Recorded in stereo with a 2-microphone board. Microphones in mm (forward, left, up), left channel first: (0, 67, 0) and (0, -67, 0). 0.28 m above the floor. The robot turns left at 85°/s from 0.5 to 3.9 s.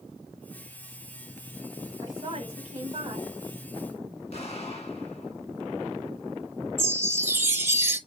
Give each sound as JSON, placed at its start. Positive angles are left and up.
{"t": 2.0, "sound": "a woman speaking", "azimuth_deg": -45, "distance_m": 1.9}
{"t": 4.3, "sound": "an explosion", "side_deg": 55, "distance_m": 1.5}
{"t": 6.8, "sound": "a chime", "side_deg": -20, "distance_m": 0.9}